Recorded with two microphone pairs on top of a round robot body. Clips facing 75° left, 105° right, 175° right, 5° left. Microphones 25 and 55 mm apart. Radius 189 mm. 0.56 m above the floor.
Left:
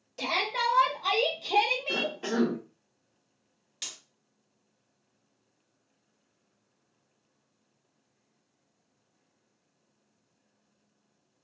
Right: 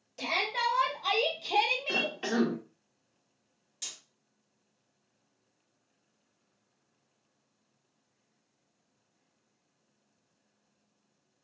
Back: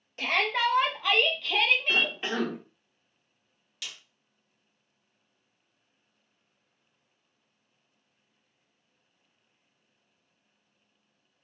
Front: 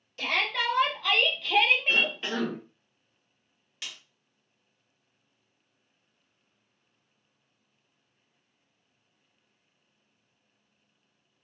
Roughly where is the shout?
Behind left.